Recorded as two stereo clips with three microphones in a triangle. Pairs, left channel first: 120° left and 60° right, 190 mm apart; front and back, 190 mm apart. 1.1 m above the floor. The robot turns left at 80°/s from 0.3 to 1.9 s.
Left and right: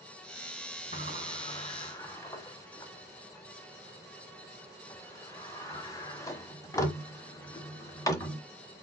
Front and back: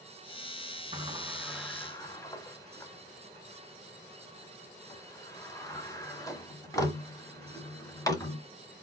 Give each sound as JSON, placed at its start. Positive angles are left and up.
{"t": 0.9, "sound": "a sliding door", "azimuth_deg": 140, "distance_m": 1.1}